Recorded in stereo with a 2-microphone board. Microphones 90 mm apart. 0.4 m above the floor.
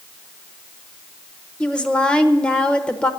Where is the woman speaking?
10° left (ahead or behind), 1.0 m.